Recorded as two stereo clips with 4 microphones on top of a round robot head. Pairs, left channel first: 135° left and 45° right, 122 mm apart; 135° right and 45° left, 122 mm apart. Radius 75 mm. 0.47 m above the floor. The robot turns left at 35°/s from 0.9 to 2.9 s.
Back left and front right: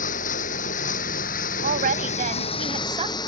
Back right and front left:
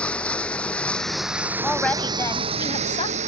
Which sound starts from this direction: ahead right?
A woman speaking, at 1.6 s.